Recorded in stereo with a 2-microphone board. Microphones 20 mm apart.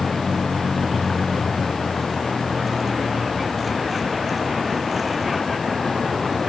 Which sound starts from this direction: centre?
A vehicle, at 0.0 s.